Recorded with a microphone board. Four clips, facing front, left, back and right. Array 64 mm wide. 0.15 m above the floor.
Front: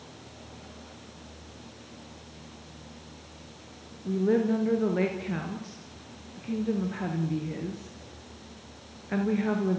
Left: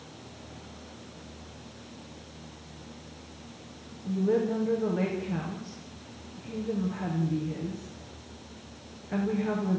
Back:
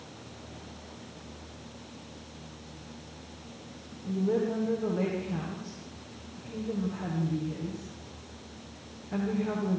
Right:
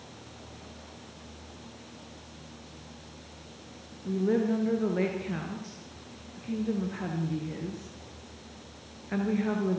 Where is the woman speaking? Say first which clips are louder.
Even, front 4 dB; 20° right, 2.5 m.